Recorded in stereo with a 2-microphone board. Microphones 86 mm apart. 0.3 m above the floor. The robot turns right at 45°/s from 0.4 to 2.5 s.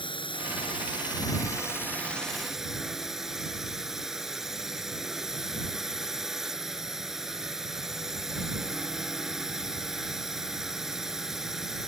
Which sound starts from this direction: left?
A drone, at 0.0 s.